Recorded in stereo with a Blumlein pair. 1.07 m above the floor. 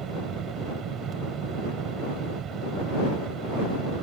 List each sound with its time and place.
0.0 s a fan: 30° right